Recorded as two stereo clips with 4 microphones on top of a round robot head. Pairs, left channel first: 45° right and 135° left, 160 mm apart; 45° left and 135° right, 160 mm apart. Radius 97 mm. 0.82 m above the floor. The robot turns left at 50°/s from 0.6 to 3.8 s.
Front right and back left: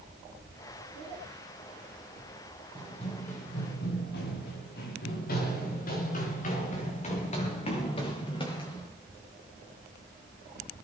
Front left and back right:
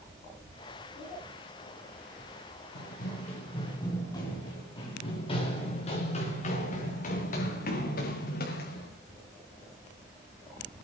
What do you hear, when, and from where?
2.8 s running footsteps: 20° left, 5 m